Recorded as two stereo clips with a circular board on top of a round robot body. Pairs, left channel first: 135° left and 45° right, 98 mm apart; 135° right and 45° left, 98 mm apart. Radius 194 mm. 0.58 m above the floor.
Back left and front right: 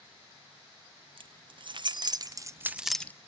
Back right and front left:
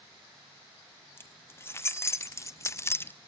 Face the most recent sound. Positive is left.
turn(degrees=180)